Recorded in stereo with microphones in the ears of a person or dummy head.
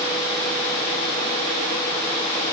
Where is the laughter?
I don't hear laughter.